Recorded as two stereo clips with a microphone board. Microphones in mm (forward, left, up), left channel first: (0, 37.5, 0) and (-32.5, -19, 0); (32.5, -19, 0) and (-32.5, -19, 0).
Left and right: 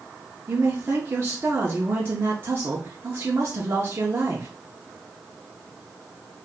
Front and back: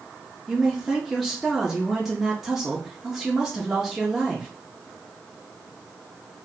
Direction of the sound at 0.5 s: 95° right.